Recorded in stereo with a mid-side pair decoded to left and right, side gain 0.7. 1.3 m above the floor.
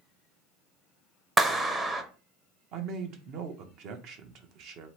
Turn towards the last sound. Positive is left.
turn(degrees=-55)